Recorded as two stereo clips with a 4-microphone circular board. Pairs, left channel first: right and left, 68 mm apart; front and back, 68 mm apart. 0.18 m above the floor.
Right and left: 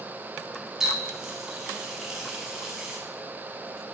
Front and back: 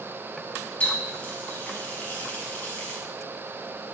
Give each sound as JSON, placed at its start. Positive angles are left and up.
{"t": 0.8, "sound": "a running tap", "azimuth_deg": 15, "distance_m": 0.8}